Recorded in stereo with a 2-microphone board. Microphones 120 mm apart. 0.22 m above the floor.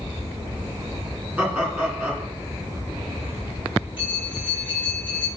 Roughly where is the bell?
Centre.